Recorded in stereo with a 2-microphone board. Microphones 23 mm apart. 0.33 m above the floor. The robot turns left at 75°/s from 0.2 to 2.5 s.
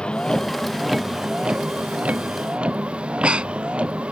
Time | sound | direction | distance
0.0 | a vehicle | 45° left (ahead or behind) | ?
3.0 | breathing | 60° right (ahead or behind) | ?